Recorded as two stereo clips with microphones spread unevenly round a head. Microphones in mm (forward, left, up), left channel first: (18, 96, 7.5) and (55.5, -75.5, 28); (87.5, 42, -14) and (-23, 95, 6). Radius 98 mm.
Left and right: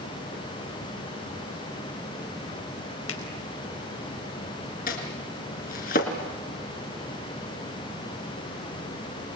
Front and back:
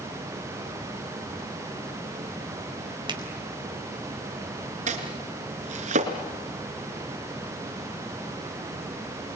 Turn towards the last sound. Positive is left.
turn(degrees=155)